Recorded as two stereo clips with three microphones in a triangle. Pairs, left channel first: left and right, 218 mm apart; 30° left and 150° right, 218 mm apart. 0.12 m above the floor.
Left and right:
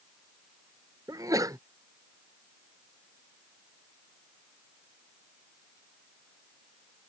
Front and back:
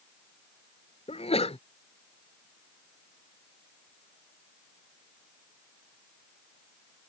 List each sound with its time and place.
1.1 s a sneeze: 20° right